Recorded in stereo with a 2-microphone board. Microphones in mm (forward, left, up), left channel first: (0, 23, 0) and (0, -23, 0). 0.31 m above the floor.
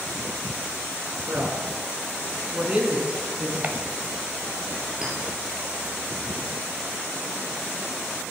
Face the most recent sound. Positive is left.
turn(degrees=-15)  # may be behind; listen again after turning